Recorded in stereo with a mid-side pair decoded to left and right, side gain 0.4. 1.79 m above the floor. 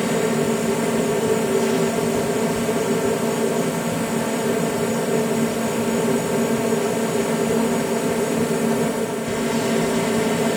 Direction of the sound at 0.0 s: Straight ahead.